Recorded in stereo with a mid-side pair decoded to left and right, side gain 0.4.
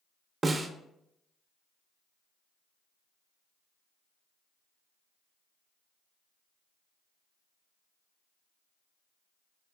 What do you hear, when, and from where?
0.4 s a snare drum: 40° right, 0.5 m